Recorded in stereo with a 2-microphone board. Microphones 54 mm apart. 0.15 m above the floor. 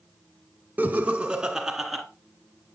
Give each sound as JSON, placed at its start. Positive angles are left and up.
{"t": 0.8, "sound": "laughter", "side_deg": -30, "distance_m": 1.4}